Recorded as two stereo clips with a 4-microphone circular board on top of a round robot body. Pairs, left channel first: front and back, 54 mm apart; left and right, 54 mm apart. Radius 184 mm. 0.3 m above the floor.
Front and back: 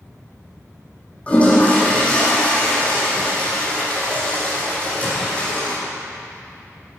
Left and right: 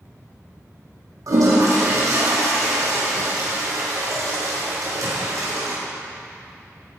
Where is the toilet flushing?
65° right, 4.5 m.